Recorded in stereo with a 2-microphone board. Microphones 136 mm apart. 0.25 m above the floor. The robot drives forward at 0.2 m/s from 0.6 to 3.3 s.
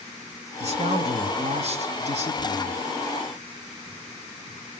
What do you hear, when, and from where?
0.6 s a man speaking: 55° right (ahead or behind), 3 m